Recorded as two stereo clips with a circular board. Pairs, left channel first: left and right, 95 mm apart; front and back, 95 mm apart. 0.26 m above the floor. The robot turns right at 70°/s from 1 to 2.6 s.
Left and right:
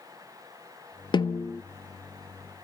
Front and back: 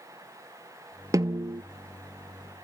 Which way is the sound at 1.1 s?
125° left.